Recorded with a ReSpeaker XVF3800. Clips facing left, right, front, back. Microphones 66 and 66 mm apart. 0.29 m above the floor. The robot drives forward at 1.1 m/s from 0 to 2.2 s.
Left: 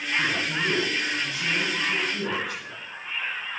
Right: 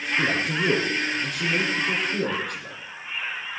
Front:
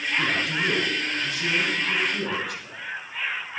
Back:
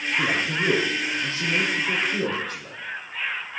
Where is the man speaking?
110° right, 5 m; by 2.8 s 130° right, 6 m.